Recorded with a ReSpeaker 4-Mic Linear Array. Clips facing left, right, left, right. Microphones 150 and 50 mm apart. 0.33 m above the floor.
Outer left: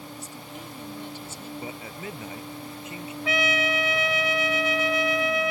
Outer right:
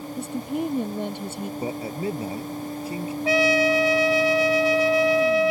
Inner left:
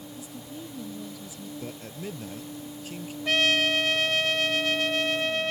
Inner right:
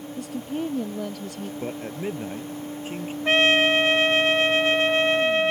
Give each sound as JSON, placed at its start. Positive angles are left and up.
{"t": 0.2, "sound": "a woman speaking", "side_deg": -70}
{"t": 1.6, "sound": "a man speaking", "side_deg": -35}
{"t": 3.2, "sound": "a trumpet", "side_deg": -35}